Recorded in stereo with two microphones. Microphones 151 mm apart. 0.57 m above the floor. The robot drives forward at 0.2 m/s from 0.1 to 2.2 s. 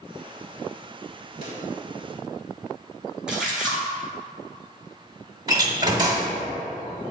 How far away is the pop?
About 2.5 m.